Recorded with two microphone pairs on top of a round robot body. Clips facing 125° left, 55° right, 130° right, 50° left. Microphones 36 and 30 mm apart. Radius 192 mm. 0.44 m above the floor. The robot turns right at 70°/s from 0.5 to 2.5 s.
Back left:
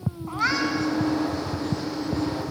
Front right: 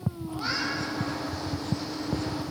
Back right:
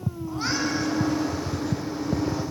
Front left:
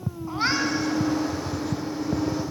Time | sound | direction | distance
0.3 | a cat meowing | 110° left | 3 m